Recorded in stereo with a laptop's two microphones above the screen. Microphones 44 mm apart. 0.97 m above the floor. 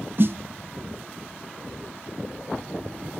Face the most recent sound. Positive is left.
turn(degrees=-55)  # may be behind; listen again after turning